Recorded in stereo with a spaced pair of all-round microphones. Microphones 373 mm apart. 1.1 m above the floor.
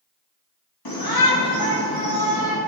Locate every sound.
0.8 s a shout: 65° left (ahead or behind), 2.5 m